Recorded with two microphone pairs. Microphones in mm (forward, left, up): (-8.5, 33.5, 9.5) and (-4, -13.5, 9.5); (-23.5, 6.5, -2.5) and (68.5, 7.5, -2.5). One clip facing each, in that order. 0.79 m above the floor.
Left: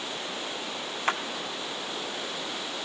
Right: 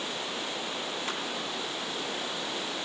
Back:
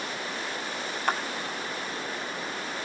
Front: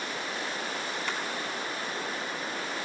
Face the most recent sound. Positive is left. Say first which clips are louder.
# left 10 dB, back 9 dB
turn(degrees=140)